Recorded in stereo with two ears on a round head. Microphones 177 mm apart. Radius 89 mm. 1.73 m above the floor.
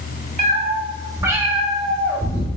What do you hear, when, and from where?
0.4 s a cat meowing: 35° right (ahead or behind), 1.5 m; by 2.5 s 20° left (ahead or behind), 1.3 m